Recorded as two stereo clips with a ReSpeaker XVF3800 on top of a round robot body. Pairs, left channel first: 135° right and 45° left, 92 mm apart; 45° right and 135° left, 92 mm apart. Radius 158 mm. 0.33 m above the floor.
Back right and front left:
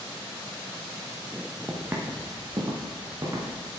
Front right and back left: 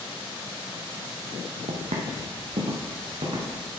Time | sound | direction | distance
1.7 | footsteps | 120° left | 1.0 m